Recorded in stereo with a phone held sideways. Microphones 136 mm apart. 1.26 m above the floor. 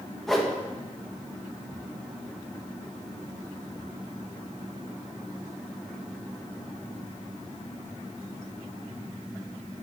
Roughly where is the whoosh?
Centre.